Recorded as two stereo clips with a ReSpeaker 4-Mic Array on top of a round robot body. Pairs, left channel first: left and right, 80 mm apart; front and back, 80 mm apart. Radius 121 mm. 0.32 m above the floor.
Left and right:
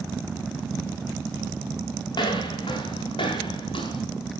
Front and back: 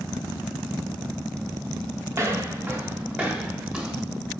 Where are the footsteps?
120° left, 3.5 m; by 4.0 s 100° left, 4 m.